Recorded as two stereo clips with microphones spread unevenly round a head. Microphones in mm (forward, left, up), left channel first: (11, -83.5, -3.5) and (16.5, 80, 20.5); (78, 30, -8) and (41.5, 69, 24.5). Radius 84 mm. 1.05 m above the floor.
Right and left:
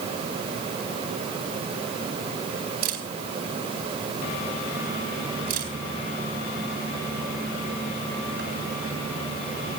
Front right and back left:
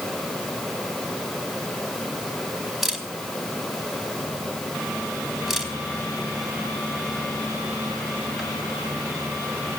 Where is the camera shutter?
50° left, 4 m.